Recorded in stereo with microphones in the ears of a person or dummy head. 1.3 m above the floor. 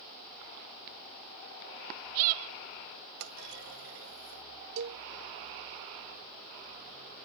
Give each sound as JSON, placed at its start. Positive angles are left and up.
{"t": 3.2, "sound": "a clunk", "side_deg": -70}
{"t": 4.8, "sound": "a cowbell", "side_deg": -75}